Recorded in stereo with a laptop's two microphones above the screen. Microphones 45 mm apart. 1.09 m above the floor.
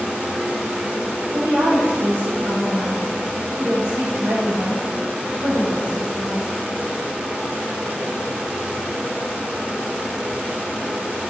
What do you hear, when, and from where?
0.0 s a fan: 35° right (ahead or behind), 3.5 m
1.3 s a woman speaking: 60° right (ahead or behind), 4.5 m